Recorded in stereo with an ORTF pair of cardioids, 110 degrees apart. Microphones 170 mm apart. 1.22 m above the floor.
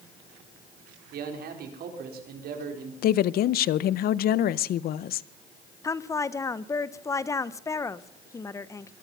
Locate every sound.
1.1 s a man speaking: 60° right, 4 m
3.0 s a woman speaking: 60° left, 0.6 m
5.8 s a woman speaking: 15° left, 0.6 m